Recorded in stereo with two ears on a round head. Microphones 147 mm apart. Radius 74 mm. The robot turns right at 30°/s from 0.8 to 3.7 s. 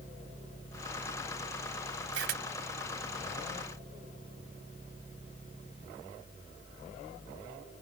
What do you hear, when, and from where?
2.1 s a camera shutter: 70° right (ahead or behind); by 2.4 s 65° right (ahead or behind)